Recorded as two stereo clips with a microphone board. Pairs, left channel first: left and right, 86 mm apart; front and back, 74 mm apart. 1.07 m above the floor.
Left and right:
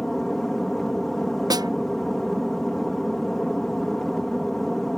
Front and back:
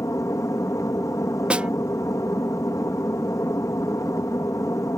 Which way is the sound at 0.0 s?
5° left.